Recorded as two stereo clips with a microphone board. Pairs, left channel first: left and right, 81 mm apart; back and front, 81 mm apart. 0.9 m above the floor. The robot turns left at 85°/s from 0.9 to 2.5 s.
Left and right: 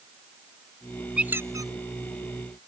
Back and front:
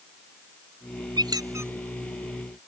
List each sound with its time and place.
1.2 s a squeak: 10° right; by 1.7 s 60° right